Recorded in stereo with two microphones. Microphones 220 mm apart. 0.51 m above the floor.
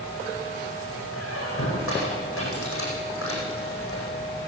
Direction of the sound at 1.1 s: 70° left (ahead or behind).